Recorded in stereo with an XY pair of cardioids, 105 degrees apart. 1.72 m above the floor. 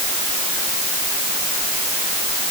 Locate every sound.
Only background noise.